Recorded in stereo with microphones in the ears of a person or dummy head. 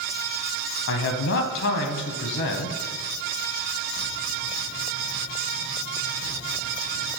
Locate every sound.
0.9 s a man speaking: 65° left (ahead or behind), 1.1 m